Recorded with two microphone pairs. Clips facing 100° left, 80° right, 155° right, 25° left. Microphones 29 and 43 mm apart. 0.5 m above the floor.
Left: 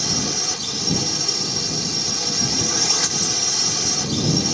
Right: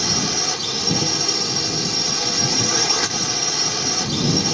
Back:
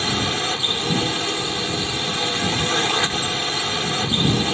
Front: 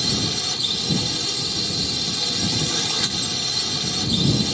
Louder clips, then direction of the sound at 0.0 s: Right 2 dB, back 4 dB; 145° right.